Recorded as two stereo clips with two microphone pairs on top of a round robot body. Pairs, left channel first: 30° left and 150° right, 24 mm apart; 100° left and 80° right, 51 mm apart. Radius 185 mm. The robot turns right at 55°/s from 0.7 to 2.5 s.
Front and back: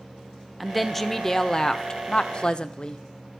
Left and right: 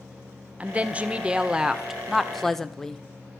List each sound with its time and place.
0.6 s a woman speaking: 75° right, 0.7 m; by 3.0 s 20° left, 0.7 m